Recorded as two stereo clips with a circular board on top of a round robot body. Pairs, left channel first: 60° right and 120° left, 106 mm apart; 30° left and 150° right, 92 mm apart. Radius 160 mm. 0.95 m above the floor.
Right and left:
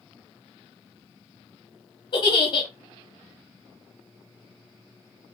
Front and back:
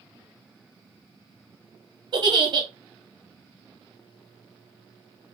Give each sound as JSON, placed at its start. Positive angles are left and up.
{"t": 2.1, "sound": "a giggle", "azimuth_deg": -110, "distance_m": 0.8}